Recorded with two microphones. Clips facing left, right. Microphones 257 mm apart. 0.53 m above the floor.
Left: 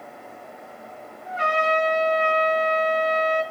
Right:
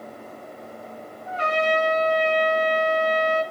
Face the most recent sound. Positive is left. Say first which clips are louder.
# right 1 dB
turn(degrees=15)  # may be behind; listen again after turning